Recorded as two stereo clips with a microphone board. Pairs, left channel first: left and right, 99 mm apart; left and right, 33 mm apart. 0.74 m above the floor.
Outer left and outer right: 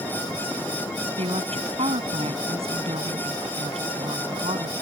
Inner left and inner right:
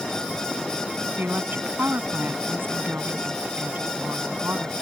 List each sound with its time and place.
1.1 s a woman speaking: 80° right